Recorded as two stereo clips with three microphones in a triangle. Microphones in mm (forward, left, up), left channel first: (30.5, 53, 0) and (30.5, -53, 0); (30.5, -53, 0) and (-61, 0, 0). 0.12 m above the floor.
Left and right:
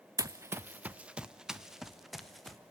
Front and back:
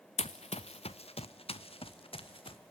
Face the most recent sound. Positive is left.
turn(degrees=0)